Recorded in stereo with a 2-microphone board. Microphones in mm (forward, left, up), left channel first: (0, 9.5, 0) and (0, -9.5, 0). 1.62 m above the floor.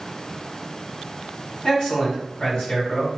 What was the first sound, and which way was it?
A man speaking, 60° left (ahead or behind).